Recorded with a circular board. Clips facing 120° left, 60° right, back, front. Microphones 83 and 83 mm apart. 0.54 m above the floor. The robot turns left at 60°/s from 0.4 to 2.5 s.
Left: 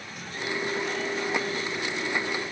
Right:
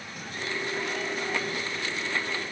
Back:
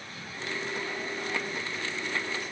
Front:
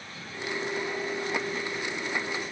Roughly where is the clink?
No clink in this recording.